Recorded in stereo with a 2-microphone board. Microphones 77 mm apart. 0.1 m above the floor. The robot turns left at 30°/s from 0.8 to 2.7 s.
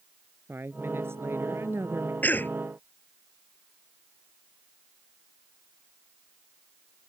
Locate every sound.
0.5 s a woman speaking: 60° right; by 2.1 s 100° right
2.2 s a cough: 20° left (ahead or behind); by 2.6 s 30° left (ahead or behind)